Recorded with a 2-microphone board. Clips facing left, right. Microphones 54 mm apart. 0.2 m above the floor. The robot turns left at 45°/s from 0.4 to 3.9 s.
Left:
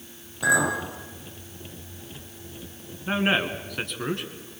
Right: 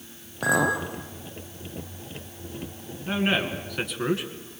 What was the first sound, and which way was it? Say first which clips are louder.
A clink: even; 40° right (ahead or behind).